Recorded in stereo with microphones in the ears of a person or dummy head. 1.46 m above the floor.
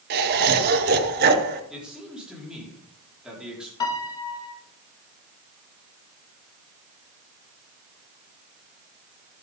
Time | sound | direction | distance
0.1 | laughter | 50° right (ahead or behind) | 1.8 m
1.7 | a man speaking | centre (ahead or behind) | 4 m
3.8 | a piano | 30° left (ahead or behind) | 1.7 m